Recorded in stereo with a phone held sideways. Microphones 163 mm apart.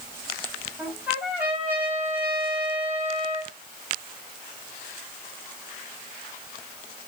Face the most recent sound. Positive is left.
turn(degrees=-10)  # may be behind; listen again after turning